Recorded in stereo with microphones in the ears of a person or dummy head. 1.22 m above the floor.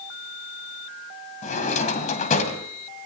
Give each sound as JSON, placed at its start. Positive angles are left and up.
{"t": 1.4, "sound": "a drawer", "side_deg": 45, "distance_m": 2.5}